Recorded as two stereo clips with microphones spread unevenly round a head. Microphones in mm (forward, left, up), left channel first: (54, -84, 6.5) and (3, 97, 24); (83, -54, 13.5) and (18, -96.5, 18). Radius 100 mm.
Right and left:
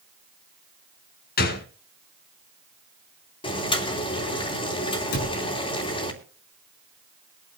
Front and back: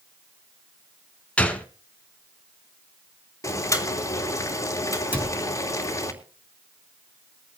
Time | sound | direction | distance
1.4 | a gunshot | 40° right | 1.6 m
3.4 | boiling | 15° right | 3 m
5.1 | a cupboard door | 80° right | 5 m